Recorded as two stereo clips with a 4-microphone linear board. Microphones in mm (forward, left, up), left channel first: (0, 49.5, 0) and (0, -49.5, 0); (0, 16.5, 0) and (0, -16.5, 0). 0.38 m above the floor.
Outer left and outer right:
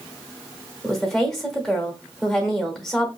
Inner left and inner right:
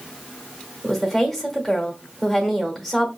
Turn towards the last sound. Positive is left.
turn(degrees=5)  # may be behind; listen again after turning